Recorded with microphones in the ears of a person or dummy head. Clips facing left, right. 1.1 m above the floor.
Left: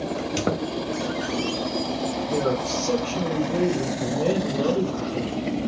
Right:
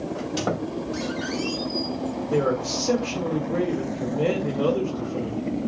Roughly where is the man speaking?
Centre.